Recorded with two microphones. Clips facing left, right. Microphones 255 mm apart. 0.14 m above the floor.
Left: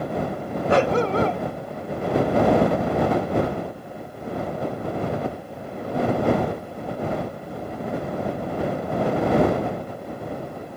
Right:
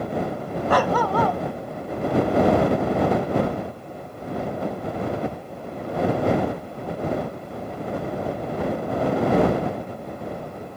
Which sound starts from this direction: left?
A dog barking, at 0.7 s.